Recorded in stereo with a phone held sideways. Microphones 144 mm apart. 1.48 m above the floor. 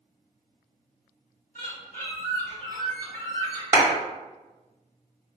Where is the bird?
70° left (ahead or behind), 1.7 m.